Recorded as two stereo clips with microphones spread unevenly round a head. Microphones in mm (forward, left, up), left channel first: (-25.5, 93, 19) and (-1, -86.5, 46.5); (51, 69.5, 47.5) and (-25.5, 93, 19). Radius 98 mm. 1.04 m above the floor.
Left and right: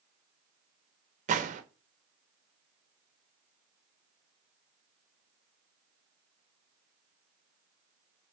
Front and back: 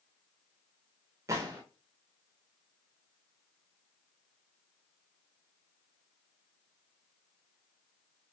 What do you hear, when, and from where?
1.3 s a gunshot: 135° right, 0.6 m